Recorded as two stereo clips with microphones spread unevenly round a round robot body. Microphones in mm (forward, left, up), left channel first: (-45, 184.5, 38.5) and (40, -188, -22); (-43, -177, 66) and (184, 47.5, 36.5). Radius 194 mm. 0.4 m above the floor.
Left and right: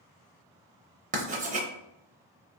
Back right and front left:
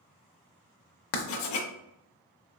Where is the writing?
145° right, 0.5 m.